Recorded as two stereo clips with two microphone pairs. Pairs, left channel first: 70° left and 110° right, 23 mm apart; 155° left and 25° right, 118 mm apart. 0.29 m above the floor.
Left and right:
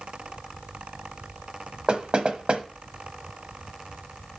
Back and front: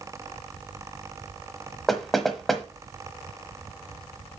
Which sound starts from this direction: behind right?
Knocking, at 1.9 s.